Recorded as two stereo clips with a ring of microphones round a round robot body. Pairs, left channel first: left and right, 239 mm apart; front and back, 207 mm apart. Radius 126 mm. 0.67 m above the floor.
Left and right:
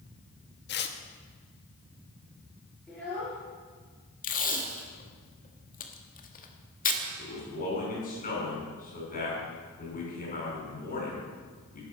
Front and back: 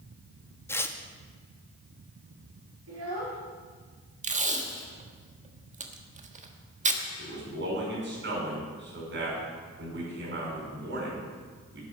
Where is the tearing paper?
75° left, 1.1 m.